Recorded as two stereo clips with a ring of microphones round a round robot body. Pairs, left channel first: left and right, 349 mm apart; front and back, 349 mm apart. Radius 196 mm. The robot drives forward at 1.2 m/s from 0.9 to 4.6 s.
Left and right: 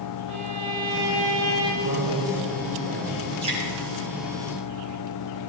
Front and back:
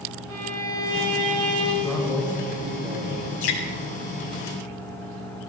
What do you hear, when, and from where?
0.3 s a violin: 130° right, 4 m; by 1.7 s 140° right, 4.5 m
1.8 s a man speaking: 90° right, 3.5 m; by 3.2 s 115° right, 4 m
3.4 s dripping: 15° right, 3.5 m